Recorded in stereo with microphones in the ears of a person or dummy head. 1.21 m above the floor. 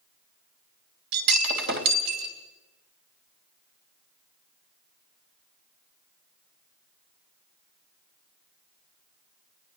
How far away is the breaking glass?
About 3 m.